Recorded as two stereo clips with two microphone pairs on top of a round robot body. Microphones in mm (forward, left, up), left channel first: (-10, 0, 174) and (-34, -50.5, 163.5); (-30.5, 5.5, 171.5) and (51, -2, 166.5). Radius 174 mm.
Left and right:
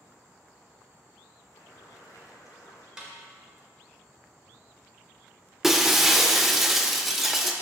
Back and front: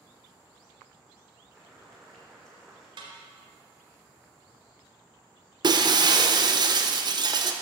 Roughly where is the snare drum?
Ahead right.